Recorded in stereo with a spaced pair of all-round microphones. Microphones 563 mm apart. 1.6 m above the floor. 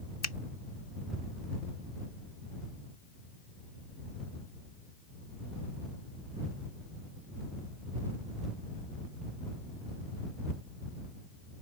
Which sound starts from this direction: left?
A finger snap, at 0.2 s.